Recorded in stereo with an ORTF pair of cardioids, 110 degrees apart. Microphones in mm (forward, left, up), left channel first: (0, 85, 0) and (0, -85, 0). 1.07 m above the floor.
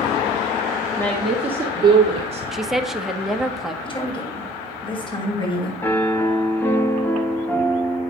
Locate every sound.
1.0 s a woman speaking: 15° left, 1.5 m; by 2.4 s 40° right, 2.5 m
2.5 s a woman speaking: straight ahead, 1.3 m
3.8 s a woman speaking: 30° left, 6 m
5.8 s a piano: 10° left, 1.6 m